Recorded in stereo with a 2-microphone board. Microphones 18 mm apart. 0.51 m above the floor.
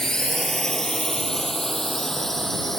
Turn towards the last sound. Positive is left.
turn(degrees=15)  # may be behind; listen again after turning